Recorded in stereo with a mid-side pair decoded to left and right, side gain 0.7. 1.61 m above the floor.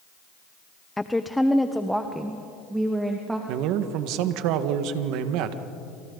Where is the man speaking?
65° right, 1.7 m.